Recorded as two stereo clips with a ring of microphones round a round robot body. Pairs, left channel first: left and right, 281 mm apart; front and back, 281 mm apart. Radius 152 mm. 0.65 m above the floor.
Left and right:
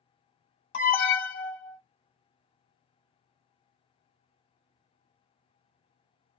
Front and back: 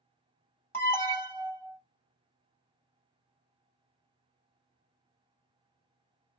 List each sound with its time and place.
0.7 s an alarm: 75° left, 1.7 m